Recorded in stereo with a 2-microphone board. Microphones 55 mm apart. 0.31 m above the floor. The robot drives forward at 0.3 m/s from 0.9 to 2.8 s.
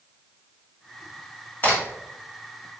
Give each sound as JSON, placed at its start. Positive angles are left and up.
{"t": 1.6, "sound": "a crack", "side_deg": 40, "distance_m": 1.9}